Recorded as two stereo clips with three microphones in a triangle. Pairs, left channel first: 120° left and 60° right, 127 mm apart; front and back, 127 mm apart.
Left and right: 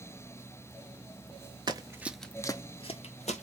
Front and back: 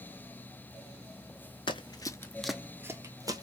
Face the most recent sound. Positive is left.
turn(degrees=120)